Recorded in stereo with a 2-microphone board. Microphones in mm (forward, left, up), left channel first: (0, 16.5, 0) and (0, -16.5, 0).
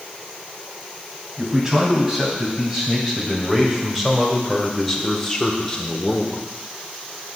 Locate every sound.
1.4 s a man speaking: 20° right (ahead or behind), 3.5 m; by 6.5 s 35° left (ahead or behind), 1.3 m